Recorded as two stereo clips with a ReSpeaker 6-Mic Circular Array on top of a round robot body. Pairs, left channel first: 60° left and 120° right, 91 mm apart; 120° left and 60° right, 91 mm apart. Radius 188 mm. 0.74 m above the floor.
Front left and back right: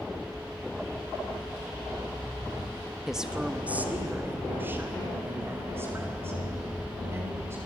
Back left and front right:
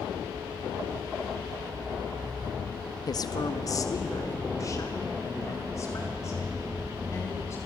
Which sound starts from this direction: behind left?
A woman speaking, at 3.1 s.